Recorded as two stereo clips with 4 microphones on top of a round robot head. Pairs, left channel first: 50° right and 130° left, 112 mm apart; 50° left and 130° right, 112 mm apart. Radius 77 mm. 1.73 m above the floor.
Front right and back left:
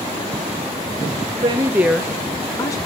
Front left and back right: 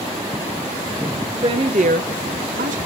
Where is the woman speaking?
Straight behind, 0.9 m; by 2.8 s 110° right, 1.4 m.